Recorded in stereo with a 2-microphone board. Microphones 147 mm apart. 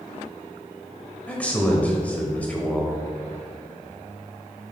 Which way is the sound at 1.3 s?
10° left (ahead or behind).